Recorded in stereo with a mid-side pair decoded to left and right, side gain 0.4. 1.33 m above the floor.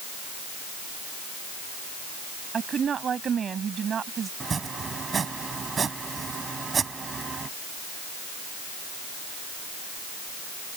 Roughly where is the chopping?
Ahead right.